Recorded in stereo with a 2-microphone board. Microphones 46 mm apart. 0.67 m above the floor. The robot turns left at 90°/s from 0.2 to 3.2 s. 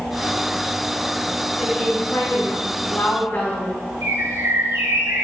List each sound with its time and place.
1.6 s a woman speaking: straight behind, 4.5 m; by 3.9 s 35° left, 4.5 m
4.0 s a bird: 80° right, 4.5 m